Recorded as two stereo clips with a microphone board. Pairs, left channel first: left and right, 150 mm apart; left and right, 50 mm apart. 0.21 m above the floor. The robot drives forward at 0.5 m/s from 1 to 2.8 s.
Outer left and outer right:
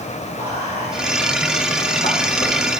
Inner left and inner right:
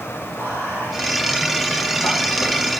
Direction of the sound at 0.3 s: 65° left (ahead or behind).